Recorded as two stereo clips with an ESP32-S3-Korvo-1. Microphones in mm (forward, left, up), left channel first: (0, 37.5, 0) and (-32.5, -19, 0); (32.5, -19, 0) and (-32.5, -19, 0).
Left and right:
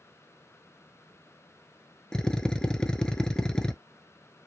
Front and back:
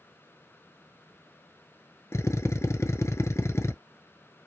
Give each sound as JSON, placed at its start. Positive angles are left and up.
{"t": 2.1, "sound": "a drill", "azimuth_deg": -15, "distance_m": 0.6}